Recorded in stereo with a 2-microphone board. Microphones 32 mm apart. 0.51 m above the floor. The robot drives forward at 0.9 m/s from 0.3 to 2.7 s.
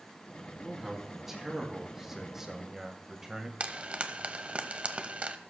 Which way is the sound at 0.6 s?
10° right (ahead or behind).